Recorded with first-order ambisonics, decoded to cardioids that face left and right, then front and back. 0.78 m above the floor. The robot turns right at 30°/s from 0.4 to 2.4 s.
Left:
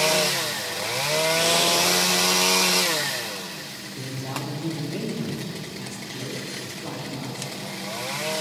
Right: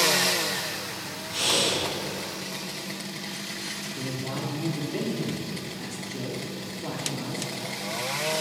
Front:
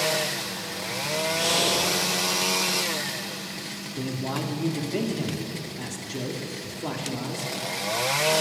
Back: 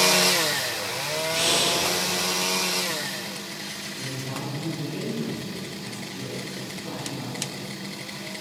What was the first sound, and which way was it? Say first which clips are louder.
Breathing: left 1 dB, back 1 dB; 155° right.